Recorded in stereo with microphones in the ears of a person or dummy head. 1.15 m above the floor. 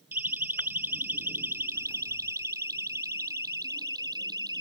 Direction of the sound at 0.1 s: 10° right (ahead or behind).